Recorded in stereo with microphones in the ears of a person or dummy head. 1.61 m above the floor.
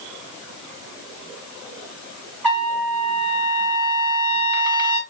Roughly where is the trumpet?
Centre.